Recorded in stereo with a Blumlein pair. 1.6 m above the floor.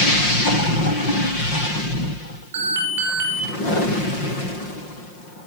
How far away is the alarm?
About 6 m.